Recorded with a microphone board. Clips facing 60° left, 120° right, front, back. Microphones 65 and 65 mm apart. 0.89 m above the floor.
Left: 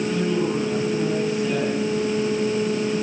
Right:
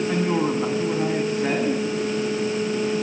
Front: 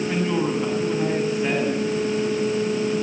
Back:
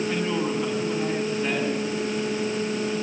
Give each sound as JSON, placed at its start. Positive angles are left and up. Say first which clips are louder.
{"t": 0.1, "sound": "a woman speaking", "louder": "right 1 dB, front 3 dB", "azimuth_deg": -80, "distance_m": 7.0}